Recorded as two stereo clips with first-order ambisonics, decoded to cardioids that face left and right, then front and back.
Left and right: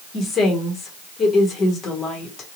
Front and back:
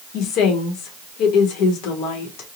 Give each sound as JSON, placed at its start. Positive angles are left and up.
{"t": 0.1, "sound": "a woman speaking", "azimuth_deg": 30, "distance_m": 1.1}